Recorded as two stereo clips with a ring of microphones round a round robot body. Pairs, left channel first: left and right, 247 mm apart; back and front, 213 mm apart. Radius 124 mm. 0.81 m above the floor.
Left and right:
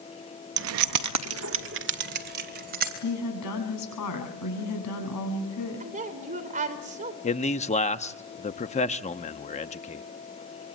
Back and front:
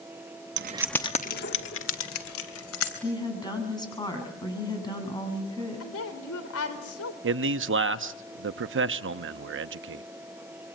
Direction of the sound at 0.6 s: 40° right.